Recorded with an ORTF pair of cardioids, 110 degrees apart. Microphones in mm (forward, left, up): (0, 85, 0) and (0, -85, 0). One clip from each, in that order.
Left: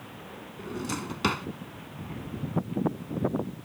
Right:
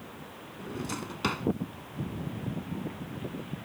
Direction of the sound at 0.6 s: 20° left.